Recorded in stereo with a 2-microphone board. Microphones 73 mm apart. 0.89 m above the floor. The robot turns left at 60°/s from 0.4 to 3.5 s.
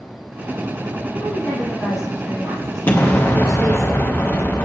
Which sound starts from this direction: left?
An explosion, at 2.9 s.